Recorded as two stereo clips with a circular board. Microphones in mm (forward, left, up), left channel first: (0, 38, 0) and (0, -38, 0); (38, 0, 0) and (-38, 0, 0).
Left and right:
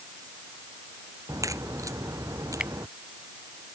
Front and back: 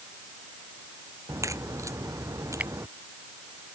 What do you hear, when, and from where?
1.3 s a crack: 135° right
2.6 s a finger snap: 150° right